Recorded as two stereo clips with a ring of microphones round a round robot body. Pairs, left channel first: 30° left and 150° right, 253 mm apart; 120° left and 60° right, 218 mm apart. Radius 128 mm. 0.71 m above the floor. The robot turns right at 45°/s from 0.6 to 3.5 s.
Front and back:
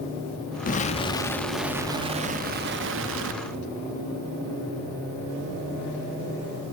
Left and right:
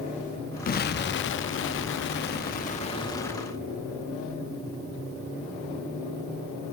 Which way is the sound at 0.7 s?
80° left.